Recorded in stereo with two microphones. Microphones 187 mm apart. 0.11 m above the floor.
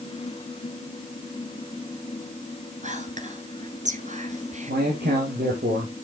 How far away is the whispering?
About 1.8 m.